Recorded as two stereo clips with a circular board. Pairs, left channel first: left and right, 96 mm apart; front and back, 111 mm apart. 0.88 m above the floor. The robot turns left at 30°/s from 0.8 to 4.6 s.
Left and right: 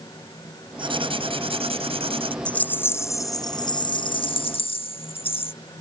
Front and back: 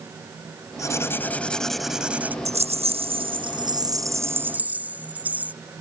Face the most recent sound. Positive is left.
turn(degrees=105)